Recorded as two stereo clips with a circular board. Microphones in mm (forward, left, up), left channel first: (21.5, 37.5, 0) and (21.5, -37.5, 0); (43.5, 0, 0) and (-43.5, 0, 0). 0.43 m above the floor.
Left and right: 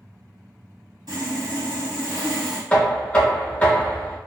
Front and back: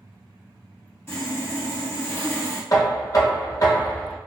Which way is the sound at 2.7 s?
20° left.